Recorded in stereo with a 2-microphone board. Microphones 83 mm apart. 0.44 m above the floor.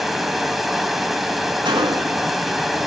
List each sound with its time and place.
0.0 s running water: centre (ahead or behind), 0.8 m
1.6 s a gunshot: 85° right, 1.1 m